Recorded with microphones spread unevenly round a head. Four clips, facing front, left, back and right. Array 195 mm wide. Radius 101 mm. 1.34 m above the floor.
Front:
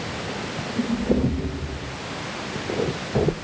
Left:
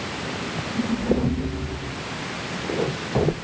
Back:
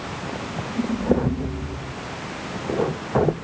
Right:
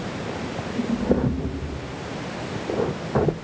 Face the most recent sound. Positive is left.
No sound to turn to.